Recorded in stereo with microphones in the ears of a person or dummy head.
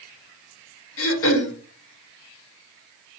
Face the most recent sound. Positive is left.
turn(degrees=65)  # may be behind; listen again after turning